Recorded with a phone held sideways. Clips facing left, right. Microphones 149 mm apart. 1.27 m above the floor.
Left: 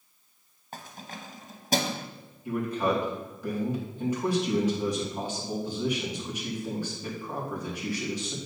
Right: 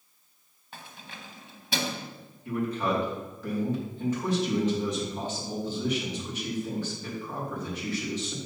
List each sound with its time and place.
0.7 s keys jangling: 40° left (ahead or behind), 0.9 m
2.5 s a man speaking: 10° left (ahead or behind), 2.5 m